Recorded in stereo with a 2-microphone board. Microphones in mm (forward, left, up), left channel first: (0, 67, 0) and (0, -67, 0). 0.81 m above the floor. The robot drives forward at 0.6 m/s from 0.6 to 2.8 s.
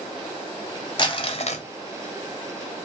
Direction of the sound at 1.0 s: 35° left (ahead or behind).